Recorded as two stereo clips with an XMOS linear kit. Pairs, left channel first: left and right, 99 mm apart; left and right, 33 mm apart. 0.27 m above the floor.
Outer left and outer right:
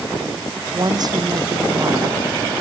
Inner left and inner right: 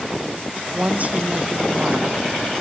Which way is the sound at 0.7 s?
45° right (ahead or behind).